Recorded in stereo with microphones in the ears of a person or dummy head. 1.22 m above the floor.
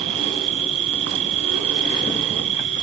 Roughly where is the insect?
Right.